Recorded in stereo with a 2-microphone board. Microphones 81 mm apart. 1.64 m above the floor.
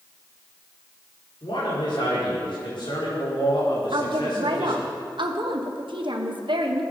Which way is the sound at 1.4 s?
70° left (ahead or behind).